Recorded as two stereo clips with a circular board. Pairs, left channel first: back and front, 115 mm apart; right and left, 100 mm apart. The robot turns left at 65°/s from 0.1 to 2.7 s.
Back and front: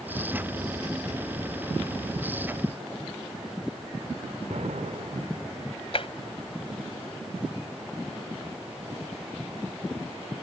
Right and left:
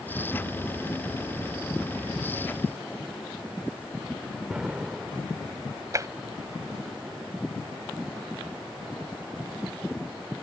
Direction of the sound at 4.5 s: 10° left.